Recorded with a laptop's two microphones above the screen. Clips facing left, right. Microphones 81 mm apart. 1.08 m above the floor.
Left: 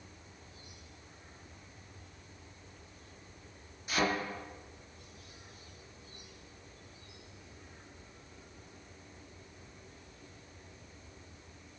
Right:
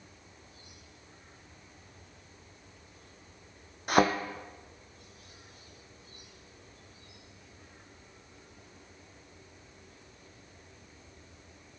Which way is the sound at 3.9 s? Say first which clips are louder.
Right 8 dB; 60° right (ahead or behind).